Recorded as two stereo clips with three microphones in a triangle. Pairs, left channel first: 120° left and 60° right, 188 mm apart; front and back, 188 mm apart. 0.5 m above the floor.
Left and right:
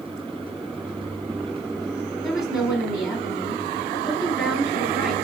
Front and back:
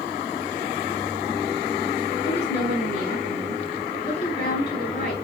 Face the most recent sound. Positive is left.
turn(degrees=45)